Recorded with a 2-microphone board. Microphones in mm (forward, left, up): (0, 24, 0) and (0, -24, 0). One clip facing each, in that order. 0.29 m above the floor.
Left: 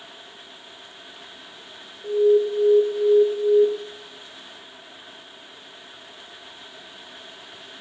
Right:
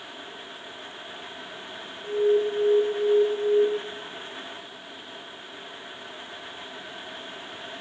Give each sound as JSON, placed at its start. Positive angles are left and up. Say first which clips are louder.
{"t": 2.0, "sound": "an alarm", "louder": "left 4 dB", "side_deg": 10, "distance_m": 1.2}